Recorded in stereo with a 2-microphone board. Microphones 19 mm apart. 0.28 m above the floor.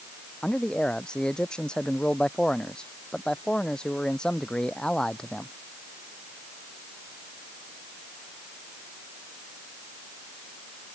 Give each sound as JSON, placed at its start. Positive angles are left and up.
{"t": 0.4, "sound": "a man speaking", "side_deg": 60}